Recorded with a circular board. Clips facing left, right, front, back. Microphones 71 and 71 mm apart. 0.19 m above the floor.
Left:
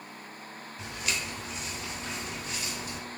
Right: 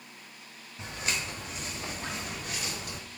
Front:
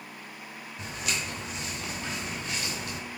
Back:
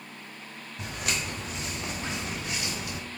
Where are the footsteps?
145° right, 1.6 m; by 3.0 s 95° right, 1.3 m.